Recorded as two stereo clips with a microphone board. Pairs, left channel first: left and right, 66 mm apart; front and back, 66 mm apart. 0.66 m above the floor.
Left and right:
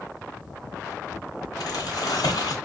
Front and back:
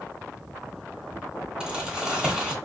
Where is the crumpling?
100° left, 1.1 m.